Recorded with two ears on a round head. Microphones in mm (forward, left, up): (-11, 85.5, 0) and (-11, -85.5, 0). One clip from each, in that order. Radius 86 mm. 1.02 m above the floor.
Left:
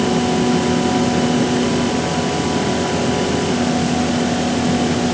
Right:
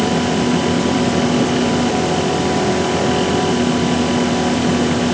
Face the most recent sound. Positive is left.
No sound to turn to.